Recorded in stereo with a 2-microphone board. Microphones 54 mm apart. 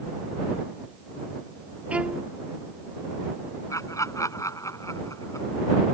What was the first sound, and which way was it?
A violin, 25° right (ahead or behind).